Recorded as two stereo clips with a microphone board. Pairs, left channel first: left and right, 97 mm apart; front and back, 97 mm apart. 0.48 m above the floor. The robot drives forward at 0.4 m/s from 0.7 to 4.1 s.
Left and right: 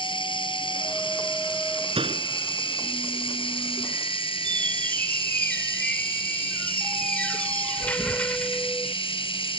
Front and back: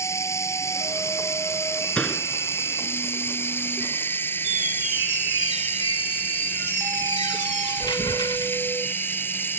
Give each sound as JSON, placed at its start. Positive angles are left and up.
{"t": 0.0, "sound": "running water", "azimuth_deg": 60}
{"t": 1.9, "sound": "a door slam", "azimuth_deg": -80}
{"t": 4.4, "sound": "a squeak", "azimuth_deg": 20}